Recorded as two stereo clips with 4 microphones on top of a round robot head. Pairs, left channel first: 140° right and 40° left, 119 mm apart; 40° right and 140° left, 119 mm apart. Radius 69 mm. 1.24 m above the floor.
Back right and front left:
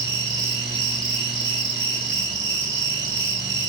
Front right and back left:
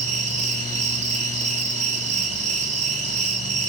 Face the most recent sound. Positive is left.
turn(degrees=105)